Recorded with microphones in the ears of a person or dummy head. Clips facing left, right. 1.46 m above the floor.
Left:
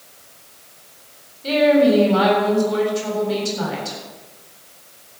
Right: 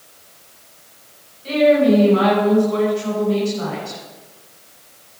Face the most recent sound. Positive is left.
turn(degrees=70)  # may be behind; listen again after turning